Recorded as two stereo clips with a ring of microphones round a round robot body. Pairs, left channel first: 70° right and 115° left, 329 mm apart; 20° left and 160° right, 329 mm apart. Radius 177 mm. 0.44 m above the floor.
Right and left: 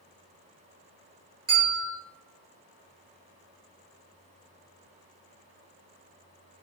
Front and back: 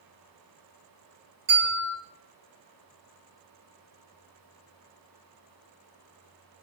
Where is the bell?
150° left, 2.0 m.